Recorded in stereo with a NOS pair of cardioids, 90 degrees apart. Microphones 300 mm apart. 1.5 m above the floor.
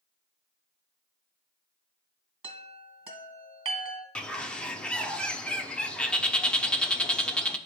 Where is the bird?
5° left, 0.6 m.